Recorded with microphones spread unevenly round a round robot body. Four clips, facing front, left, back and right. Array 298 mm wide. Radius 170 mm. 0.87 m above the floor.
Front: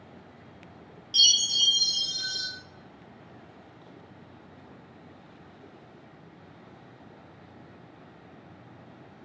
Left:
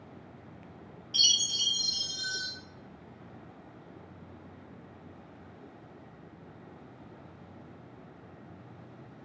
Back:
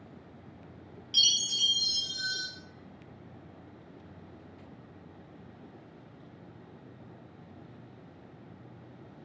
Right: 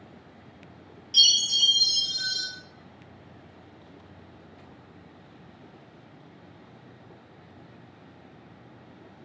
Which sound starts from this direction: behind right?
A chime, at 1.1 s.